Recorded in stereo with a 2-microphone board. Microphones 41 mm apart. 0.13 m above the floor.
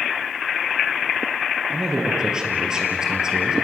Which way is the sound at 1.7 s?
20° right (ahead or behind).